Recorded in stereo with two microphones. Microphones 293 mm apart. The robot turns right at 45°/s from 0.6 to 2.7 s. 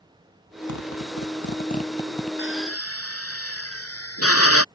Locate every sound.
0.7 s a zipper: 75° left (ahead or behind); by 2.3 s centre (ahead or behind)
2.4 s a drill: 40° left (ahead or behind); by 4.7 s 50° left (ahead or behind)